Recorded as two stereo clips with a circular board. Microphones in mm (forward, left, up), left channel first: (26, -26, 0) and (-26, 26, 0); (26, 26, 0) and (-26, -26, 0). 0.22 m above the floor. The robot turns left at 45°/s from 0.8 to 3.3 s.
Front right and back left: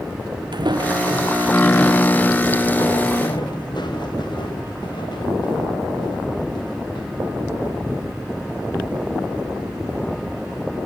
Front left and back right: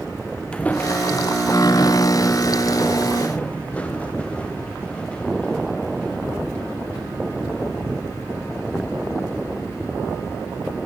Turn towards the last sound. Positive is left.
turn(degrees=-35)